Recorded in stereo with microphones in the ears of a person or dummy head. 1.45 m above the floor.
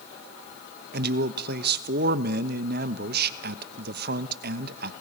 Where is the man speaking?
50° right (ahead or behind), 1.0 m.